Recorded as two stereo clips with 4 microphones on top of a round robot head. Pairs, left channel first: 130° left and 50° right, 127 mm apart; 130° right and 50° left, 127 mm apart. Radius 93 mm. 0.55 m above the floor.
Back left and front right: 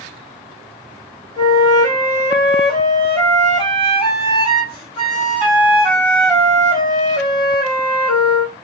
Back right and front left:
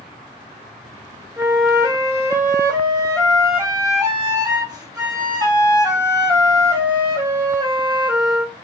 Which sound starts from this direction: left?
A flute, at 1.4 s.